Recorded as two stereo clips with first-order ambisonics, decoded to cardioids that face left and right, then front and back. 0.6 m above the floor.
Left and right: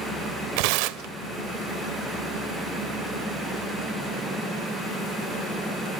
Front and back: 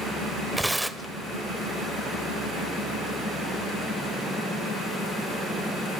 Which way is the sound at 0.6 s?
95° right.